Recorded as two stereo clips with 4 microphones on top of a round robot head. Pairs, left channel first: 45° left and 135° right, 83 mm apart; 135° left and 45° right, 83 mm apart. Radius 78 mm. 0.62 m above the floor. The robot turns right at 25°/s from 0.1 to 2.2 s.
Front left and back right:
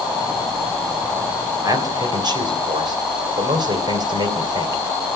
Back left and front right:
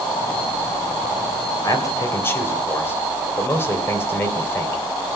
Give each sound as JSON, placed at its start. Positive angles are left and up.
{"t": 1.6, "sound": "a man speaking", "azimuth_deg": 180, "distance_m": 3.0}